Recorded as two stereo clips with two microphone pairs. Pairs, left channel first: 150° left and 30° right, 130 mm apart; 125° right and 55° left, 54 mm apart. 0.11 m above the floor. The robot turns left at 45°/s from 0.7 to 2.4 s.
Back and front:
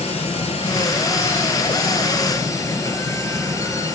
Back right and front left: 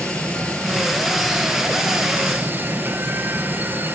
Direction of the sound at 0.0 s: 170° left.